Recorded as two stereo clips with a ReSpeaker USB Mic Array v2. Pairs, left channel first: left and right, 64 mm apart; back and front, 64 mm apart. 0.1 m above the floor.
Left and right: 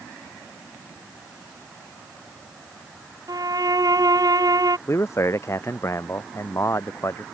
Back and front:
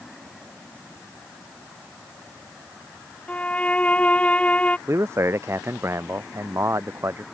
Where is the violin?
110° right.